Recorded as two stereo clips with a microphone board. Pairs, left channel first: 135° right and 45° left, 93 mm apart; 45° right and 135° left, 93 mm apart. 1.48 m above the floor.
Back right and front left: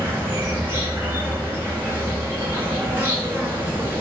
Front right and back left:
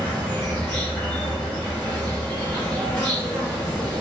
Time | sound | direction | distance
0.0 | an insect | 5° left | 1.4 m